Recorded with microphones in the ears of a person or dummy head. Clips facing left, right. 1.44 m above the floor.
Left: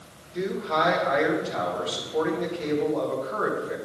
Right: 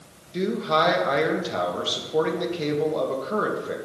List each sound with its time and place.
0.3 s a man speaking: 55° right (ahead or behind), 1.9 m